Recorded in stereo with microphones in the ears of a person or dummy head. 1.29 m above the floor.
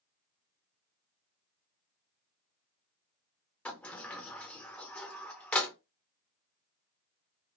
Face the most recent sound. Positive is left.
turn(degrees=10)  # may be behind; listen again after turning